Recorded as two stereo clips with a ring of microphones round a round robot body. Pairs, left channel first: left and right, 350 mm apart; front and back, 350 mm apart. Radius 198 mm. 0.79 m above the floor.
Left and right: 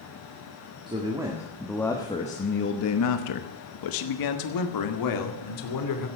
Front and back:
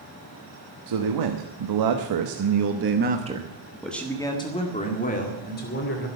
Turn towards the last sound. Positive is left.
turn(degrees=60)